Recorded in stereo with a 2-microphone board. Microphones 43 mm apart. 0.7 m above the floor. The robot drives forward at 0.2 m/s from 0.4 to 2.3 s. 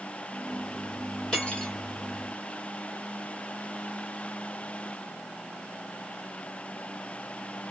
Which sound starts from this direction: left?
Cutlery clinking, at 1.3 s.